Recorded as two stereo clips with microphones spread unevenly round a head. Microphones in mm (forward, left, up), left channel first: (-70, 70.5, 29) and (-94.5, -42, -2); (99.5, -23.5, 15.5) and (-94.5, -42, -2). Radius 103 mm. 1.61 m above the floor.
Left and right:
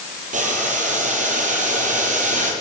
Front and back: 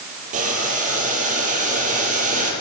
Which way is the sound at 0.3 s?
120° right.